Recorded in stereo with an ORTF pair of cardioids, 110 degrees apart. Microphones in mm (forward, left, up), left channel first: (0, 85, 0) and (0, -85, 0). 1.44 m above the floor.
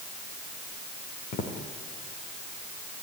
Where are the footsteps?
60° left, 5 m.